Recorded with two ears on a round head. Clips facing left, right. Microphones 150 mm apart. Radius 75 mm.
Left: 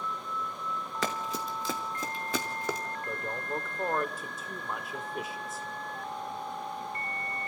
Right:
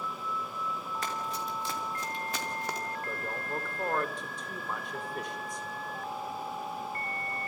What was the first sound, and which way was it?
Running footsteps, 60° left (ahead or behind).